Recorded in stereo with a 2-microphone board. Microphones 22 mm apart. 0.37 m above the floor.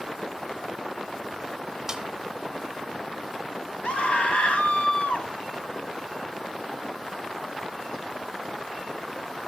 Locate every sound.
1.9 s a snare drum: 20° right (ahead or behind), 1.0 m
3.8 s a scream: 65° left (ahead or behind), 2.0 m